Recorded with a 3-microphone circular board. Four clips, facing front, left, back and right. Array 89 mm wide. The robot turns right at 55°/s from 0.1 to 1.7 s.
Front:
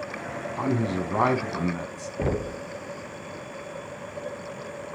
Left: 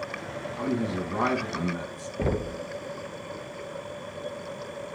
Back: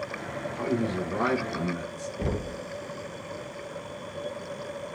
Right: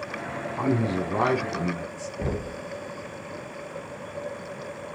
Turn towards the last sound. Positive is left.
turn(degrees=35)